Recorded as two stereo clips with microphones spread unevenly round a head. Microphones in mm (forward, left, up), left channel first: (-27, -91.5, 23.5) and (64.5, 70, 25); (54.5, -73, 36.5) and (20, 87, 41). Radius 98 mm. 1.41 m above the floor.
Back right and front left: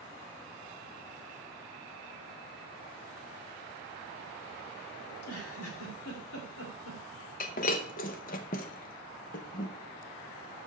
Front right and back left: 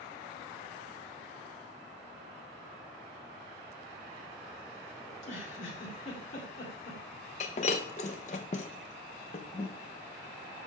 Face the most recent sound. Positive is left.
turn(degrees=-110)